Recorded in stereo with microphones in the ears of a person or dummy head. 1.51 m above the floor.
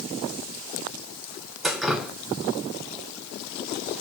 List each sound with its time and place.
1.6 s dripping: 5° left (ahead or behind), 0.8 m